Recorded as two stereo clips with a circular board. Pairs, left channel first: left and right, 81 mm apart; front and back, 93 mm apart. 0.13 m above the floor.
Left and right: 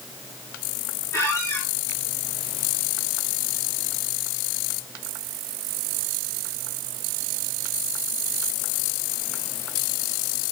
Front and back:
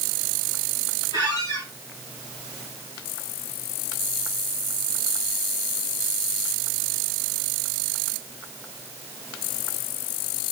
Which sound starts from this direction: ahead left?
A squeak, at 1.1 s.